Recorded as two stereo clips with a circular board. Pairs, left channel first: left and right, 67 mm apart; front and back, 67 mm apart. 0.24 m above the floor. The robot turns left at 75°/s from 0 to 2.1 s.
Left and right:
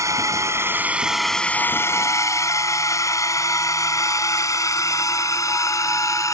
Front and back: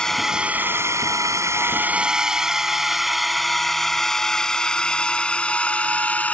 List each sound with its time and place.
0.0 s a drone: 75° right; by 6.3 s 65° left